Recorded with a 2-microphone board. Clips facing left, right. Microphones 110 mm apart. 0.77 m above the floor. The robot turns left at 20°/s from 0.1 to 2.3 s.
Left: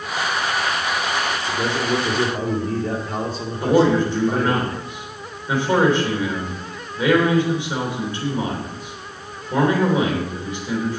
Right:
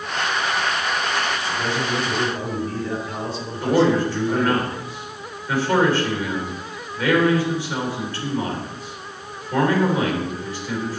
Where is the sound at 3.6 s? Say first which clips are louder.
Left 2 dB; 20° left (ahead or behind), 3.5 m.